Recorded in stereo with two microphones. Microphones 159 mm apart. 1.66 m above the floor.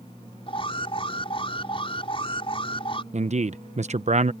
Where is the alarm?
35° left (ahead or behind).